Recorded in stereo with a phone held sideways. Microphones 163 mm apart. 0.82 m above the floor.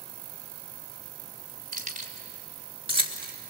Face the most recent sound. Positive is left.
turn(degrees=-25)  # may be behind; listen again after turning